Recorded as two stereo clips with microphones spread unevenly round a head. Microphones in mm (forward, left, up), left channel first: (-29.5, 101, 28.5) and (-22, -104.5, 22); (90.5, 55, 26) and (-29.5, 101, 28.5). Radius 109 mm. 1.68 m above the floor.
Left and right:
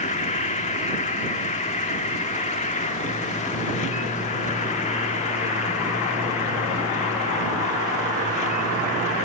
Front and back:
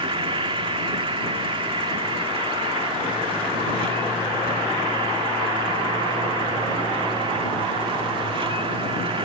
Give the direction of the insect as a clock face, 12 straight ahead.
8 o'clock.